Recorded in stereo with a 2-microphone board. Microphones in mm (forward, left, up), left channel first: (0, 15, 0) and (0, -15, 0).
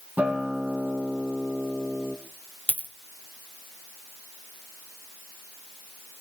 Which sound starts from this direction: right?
A guitar, at 0.2 s.